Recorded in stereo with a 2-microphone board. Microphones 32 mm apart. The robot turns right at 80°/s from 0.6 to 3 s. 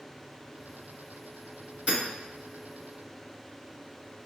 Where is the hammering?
35° right (ahead or behind), 1.8 m; by 2.0 s 40° right (ahead or behind), 1.8 m.